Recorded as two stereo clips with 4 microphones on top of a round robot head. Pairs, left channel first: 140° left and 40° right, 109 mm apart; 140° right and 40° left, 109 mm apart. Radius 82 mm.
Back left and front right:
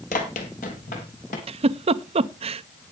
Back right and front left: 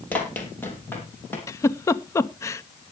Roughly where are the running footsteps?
Behind left.